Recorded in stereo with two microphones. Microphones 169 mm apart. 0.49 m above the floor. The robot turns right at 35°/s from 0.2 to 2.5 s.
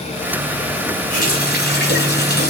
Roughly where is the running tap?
Ahead left.